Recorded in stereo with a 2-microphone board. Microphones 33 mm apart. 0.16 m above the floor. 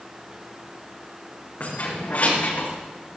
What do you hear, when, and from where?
1.6 s keys jangling: 70° left (ahead or behind), 7 m; by 2.7 s 65° left (ahead or behind), 7.5 m